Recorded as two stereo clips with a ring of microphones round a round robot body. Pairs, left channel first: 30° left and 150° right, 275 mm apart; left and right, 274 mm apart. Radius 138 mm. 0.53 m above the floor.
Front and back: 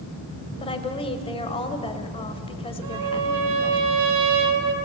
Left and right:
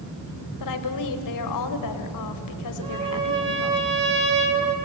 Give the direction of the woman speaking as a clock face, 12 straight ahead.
9 o'clock.